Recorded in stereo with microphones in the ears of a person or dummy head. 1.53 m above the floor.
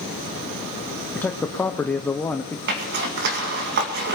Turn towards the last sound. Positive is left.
turn(degrees=-65)  # may be behind; listen again after turning